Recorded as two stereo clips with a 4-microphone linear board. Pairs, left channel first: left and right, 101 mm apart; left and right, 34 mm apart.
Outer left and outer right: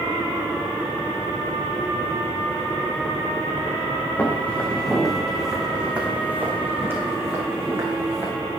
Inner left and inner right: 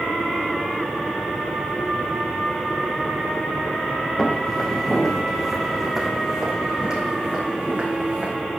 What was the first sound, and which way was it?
Footsteps, 20° left (ahead or behind).